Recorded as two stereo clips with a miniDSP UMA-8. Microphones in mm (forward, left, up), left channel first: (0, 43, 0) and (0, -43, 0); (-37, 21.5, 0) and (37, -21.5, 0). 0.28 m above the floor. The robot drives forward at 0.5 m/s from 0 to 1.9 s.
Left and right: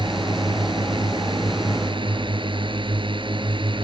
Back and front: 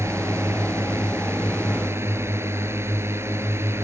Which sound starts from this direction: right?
A drone, at 0.0 s.